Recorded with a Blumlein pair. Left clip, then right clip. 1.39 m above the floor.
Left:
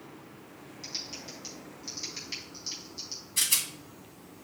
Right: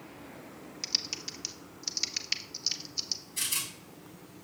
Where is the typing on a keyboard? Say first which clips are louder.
Right 6 dB; 60° right, 0.6 m.